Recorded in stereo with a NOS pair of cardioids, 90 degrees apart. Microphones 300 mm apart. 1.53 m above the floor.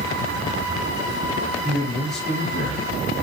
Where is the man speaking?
Straight ahead, 0.7 m.